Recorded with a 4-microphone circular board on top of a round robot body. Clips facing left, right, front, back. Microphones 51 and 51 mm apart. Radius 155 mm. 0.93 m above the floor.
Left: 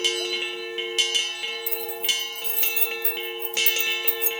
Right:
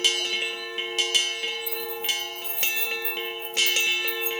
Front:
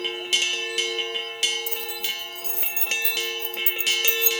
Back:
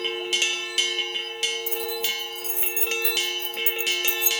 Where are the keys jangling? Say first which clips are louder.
Left 1 dB, back 3 dB; 115° left, 3.5 m; by 4.3 s 110° left, 1.2 m.